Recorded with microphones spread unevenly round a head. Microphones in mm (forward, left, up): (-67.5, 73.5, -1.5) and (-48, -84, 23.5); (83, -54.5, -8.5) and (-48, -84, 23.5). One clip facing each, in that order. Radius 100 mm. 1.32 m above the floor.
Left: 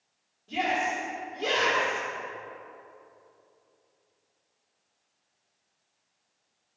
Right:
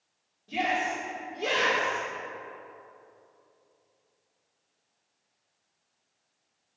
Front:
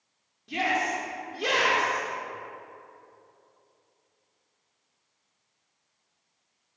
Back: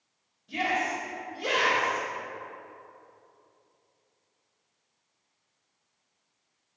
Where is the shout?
5° left, 3.5 m.